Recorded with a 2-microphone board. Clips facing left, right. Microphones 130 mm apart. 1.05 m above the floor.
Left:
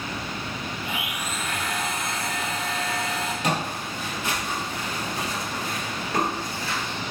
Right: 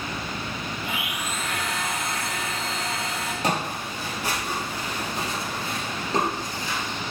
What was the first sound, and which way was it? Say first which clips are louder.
A blender: even; 70° right (ahead or behind).